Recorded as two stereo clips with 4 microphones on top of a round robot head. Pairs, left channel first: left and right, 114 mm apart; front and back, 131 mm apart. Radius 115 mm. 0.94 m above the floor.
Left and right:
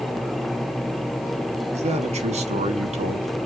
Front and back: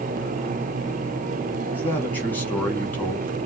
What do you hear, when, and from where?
1.7 s a man speaking: 75° right, 2 m